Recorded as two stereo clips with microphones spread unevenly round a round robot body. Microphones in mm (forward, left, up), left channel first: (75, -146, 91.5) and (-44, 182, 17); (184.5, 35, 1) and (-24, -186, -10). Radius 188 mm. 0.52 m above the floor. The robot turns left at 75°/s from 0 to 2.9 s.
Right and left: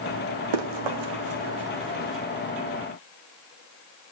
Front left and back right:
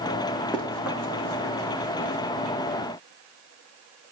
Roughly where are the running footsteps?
Behind left.